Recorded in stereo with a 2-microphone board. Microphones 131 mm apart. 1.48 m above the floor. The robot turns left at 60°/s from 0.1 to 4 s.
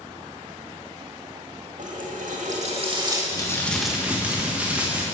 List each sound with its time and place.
1.8 s a running tap: 70° right, 1.7 m; by 3.2 s 155° right, 1.7 m
3.3 s crumpling: 30° left, 1.5 m; by 5.0 s 10° right, 1.5 m